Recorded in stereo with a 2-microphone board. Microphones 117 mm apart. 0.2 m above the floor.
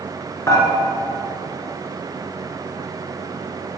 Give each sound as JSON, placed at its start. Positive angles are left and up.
{"t": 0.5, "sound": "dishes clattering", "side_deg": 25, "distance_m": 1.7}